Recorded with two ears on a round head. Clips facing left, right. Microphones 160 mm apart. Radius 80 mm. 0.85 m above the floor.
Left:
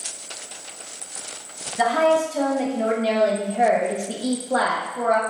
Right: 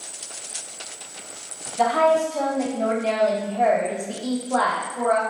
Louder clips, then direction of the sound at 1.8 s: Even; 10° left (ahead or behind).